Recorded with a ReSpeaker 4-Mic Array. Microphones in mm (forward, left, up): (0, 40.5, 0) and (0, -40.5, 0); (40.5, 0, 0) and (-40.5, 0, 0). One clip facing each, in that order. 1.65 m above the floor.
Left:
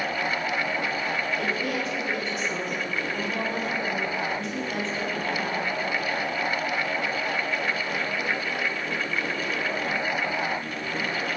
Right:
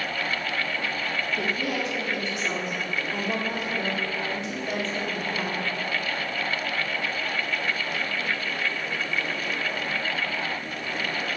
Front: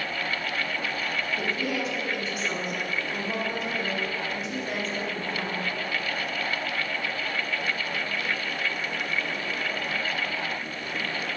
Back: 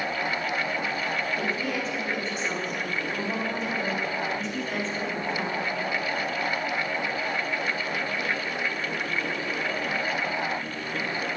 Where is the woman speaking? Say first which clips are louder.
Even, even; 85° right, 3 m.